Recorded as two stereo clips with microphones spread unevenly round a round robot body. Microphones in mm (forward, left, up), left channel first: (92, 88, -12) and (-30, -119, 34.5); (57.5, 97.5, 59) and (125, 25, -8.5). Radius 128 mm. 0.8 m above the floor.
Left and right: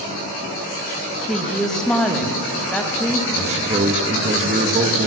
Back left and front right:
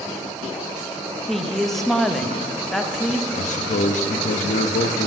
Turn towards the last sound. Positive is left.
turn(degrees=170)